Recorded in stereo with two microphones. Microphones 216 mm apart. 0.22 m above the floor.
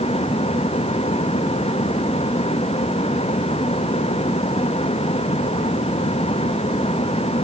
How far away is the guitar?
No guitar in this recording.